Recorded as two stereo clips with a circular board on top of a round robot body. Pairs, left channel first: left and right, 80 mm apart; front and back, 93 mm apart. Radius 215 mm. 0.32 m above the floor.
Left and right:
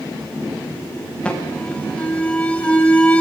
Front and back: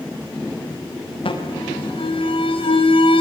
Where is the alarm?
10° left, 6 m.